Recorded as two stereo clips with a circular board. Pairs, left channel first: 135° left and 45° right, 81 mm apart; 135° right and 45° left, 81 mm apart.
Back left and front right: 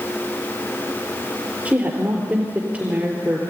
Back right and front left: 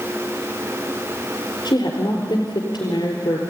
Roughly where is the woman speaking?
Behind right.